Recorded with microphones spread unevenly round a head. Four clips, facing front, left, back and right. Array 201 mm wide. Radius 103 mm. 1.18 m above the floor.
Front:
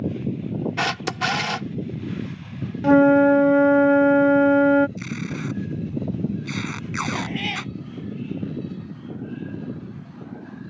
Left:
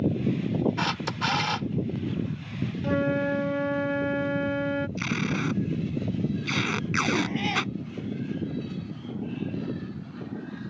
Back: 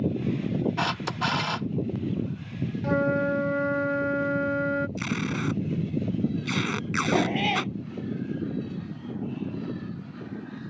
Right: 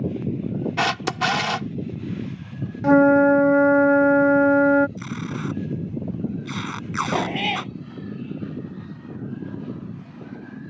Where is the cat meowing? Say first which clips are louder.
Right 3 dB, back 4 dB; 120° right.